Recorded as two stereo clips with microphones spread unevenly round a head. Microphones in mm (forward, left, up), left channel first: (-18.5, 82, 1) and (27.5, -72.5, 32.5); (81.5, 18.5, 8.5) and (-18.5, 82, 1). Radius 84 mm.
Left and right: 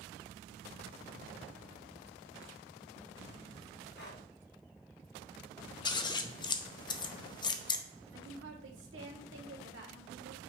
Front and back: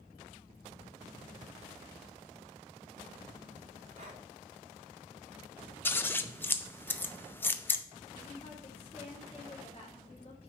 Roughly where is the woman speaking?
Right.